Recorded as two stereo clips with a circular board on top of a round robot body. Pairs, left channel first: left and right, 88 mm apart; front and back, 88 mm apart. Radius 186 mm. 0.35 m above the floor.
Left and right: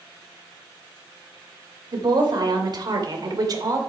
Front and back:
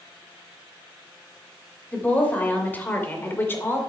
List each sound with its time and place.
1.9 s a woman speaking: 70° right, 3.5 m; by 3.8 s 60° right, 3 m